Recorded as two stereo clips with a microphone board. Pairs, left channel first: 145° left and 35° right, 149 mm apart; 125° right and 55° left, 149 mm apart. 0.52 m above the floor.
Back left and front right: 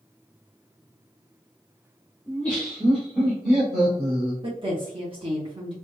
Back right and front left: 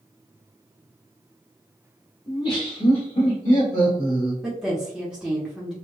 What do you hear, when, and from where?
2.3 s laughter: 155° right, 1.0 m; by 4.3 s 120° right, 2.5 m
4.4 s a woman speaking: 25° right, 0.8 m